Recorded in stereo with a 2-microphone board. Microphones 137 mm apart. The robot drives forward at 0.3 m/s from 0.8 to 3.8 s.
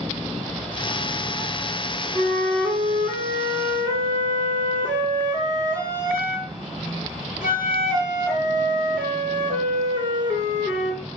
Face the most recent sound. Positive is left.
turn(degrees=-25)  # may be behind; listen again after turning